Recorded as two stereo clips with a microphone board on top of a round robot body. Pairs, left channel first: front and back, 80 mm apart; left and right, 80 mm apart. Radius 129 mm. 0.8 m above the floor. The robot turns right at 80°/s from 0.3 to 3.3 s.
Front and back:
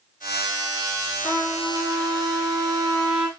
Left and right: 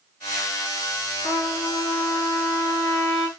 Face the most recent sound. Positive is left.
turn(degrees=-95)